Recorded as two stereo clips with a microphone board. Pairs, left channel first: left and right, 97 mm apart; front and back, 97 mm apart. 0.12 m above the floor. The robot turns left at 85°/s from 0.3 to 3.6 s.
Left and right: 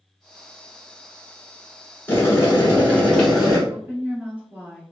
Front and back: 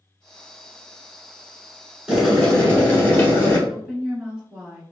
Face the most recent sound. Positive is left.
turn(degrees=-120)